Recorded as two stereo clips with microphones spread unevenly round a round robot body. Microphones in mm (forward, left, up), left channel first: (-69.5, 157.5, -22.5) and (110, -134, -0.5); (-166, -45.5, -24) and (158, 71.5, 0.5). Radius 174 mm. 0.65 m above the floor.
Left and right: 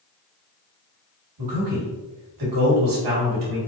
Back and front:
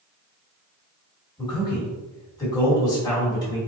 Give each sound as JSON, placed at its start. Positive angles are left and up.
{"t": 1.4, "sound": "a man speaking", "azimuth_deg": -85, "distance_m": 1.9}